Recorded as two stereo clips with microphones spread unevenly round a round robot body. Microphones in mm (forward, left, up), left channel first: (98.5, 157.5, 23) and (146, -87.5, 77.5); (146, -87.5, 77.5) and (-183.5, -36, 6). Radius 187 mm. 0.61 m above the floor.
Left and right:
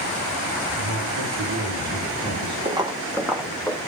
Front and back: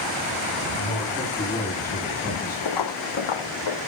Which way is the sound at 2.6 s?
15° right.